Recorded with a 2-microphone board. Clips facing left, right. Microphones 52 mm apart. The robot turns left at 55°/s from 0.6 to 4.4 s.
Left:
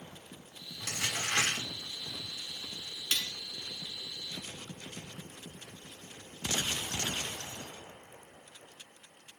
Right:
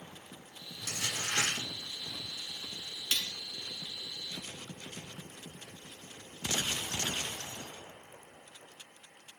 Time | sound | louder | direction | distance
0.8 | crumpling | left 2 dB | 105° left | 5.5 m
3.1 | cutlery clinking | even | 10° left (ahead or behind) | 0.9 m